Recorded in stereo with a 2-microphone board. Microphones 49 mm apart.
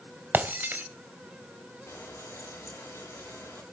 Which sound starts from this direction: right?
Breaking glass, at 0.3 s.